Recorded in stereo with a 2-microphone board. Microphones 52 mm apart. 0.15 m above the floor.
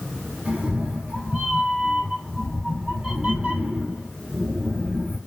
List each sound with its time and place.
0.5 s a cat meowing: 25° right (ahead or behind), 1.3 m